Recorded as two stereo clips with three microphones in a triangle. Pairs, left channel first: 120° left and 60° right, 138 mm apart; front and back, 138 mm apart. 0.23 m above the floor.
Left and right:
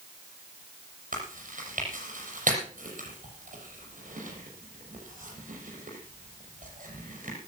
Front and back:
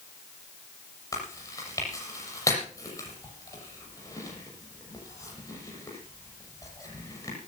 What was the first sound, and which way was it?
Chewing, 65° right.